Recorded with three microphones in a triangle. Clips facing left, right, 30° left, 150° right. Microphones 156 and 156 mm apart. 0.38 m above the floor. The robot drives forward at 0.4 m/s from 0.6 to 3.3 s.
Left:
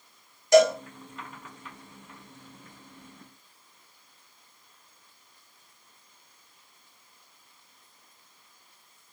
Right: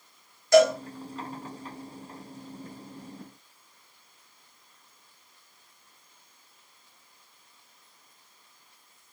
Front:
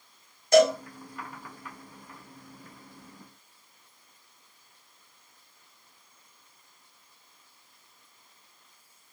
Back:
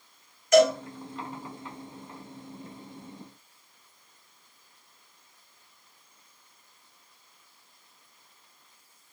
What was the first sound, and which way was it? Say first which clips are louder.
A cowbell: even, even; 40° left.